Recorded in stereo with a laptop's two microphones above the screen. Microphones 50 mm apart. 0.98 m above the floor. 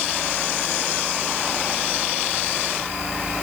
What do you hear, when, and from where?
Only background noise.